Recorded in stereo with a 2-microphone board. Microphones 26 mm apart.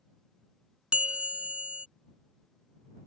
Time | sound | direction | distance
0.9 | a bell | 50° right (ahead or behind) | ?